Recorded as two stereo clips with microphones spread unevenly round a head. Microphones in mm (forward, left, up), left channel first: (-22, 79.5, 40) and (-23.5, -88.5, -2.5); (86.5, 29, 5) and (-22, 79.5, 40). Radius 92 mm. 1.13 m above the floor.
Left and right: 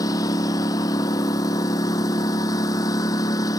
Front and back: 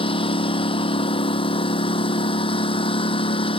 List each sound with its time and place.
0.0 s a lawn mower: 20° left